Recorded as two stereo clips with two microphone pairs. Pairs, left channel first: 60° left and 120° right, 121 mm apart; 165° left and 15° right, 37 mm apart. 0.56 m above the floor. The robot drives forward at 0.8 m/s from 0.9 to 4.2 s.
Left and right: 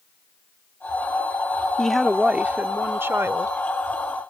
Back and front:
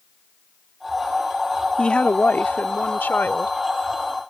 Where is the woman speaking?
130° left; by 3.6 s 170° left.